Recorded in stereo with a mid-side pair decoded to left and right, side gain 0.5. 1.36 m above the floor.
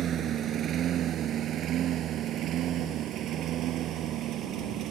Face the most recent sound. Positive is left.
turn(degrees=-70)